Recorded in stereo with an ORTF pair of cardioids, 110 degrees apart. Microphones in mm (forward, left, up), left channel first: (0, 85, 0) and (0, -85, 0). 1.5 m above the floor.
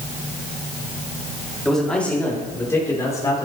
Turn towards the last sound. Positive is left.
turn(degrees=20)